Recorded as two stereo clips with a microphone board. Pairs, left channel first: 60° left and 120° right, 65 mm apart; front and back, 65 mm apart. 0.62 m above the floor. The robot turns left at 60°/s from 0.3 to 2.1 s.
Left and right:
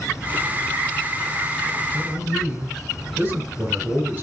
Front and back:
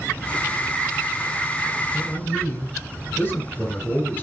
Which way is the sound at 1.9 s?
60° right.